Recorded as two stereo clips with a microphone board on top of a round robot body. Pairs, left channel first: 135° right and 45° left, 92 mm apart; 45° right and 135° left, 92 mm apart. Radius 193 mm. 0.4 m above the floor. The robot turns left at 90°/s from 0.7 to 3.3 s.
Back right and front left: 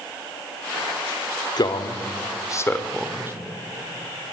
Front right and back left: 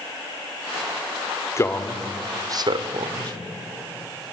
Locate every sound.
1.6 s a man speaking: 100° right, 2.0 m; by 3.3 s 105° left, 2.0 m